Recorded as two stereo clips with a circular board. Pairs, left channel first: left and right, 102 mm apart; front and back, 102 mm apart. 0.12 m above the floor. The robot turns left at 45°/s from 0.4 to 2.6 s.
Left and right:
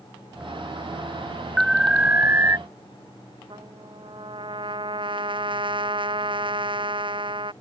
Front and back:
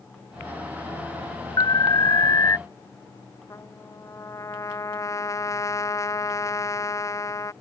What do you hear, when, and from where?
1.6 s an alarm: straight ahead; by 2.6 s 45° right
3.5 s a trumpet: 55° right